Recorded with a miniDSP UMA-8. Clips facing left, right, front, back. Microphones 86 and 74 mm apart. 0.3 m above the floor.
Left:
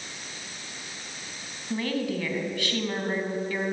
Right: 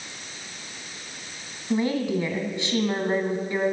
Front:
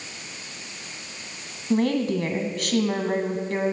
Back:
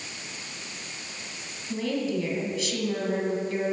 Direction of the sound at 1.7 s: 25° right.